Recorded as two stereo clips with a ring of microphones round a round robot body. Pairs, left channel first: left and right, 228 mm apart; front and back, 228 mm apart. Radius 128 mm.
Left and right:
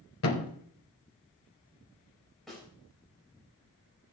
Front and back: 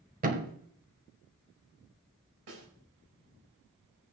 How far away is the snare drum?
About 4.5 m.